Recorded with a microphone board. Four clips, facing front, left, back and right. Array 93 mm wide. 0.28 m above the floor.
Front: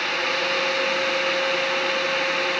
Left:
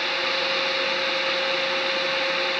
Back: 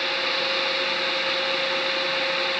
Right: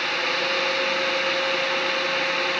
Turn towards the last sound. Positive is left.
No sound to turn to.